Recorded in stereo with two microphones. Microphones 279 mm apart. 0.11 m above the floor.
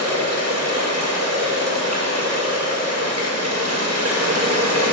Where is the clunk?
I don't hear a clunk.